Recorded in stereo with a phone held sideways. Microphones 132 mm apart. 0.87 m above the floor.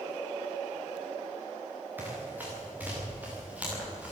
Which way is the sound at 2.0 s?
15° right (ahead or behind).